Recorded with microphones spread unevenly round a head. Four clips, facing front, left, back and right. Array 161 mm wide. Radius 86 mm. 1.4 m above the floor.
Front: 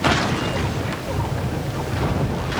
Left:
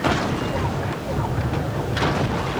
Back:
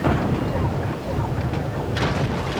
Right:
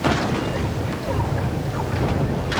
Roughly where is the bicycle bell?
No bicycle bell in this recording.